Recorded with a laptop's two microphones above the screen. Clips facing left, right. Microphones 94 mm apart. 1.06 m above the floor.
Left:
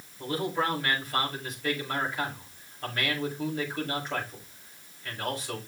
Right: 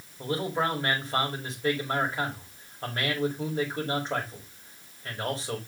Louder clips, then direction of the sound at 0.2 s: Right 1 dB; 30° right (ahead or behind).